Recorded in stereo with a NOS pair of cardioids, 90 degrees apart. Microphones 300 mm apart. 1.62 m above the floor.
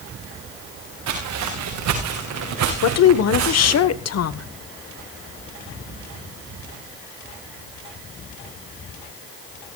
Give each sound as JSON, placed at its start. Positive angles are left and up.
{"t": 1.1, "sound": "footsteps", "azimuth_deg": -70, "distance_m": 6.5}
{"t": 2.8, "sound": "a woman speaking", "azimuth_deg": 55, "distance_m": 1.2}